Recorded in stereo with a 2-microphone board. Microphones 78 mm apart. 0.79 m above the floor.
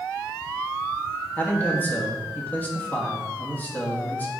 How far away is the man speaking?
About 1.4 m.